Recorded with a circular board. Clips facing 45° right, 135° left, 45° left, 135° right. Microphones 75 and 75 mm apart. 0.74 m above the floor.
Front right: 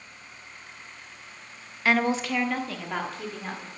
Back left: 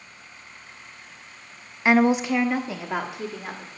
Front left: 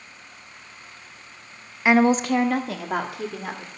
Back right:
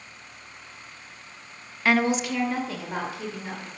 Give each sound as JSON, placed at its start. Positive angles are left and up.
{"t": 1.9, "sound": "a woman speaking", "azimuth_deg": 95, "distance_m": 0.5}